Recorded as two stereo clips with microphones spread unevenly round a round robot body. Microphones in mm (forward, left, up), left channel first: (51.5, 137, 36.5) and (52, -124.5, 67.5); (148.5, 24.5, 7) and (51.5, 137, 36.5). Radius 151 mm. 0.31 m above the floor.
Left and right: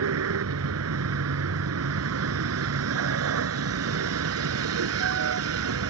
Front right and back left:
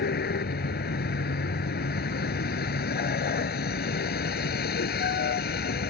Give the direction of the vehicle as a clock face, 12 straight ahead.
2 o'clock.